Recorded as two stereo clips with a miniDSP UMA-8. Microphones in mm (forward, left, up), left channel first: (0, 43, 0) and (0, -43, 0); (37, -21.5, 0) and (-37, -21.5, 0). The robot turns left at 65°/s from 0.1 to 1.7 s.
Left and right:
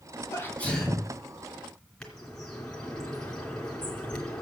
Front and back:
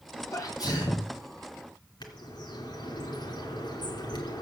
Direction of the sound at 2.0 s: 5° left.